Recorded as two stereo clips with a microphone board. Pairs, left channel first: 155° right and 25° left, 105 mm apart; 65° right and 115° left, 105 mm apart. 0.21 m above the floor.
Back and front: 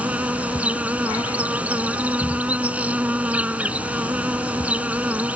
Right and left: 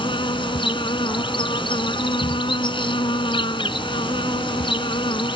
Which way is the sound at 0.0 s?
50° right.